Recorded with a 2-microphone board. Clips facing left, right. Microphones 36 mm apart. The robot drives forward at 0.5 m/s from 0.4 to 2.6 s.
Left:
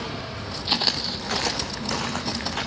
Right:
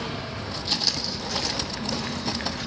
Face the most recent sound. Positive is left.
turn(degrees=65)  # may be behind; listen again after turning